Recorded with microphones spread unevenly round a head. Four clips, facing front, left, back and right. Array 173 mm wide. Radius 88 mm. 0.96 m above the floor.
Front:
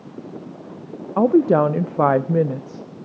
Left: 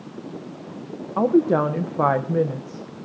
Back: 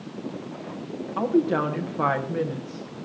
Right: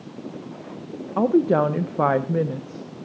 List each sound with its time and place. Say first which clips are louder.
1.2 s a woman speaking: even, front 7 dB; 10° right, 0.5 m